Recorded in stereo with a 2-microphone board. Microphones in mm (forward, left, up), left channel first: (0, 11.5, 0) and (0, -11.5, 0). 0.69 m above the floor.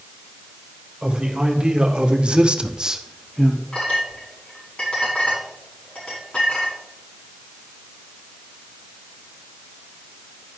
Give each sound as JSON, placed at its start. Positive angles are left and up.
{"t": 1.0, "sound": "a man speaking", "side_deg": -40, "distance_m": 2.5}
{"t": 3.7, "sound": "a clink", "side_deg": 60, "distance_m": 5.5}